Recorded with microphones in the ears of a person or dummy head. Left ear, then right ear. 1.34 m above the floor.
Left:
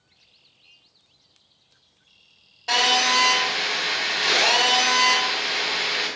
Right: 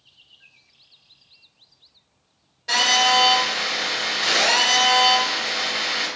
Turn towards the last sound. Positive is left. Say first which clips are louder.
# right 2 dB
turn(degrees=15)  # may be behind; listen again after turning